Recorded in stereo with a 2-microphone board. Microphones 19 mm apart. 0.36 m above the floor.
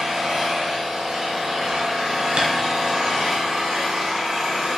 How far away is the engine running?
About 1.7 m.